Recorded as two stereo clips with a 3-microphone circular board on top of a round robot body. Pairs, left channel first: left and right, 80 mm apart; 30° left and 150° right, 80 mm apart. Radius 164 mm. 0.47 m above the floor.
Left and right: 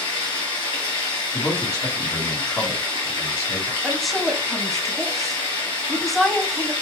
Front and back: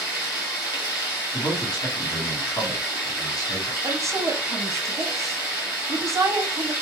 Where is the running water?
80° left, 2.5 m.